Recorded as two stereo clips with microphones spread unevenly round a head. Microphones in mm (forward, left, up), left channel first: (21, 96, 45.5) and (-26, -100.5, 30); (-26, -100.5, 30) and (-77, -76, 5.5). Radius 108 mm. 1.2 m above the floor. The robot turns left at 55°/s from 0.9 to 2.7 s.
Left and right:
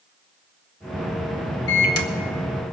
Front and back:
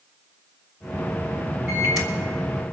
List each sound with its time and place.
1.7 s a microwave: 90° left, 1.2 m; by 2.1 s 70° left, 1.2 m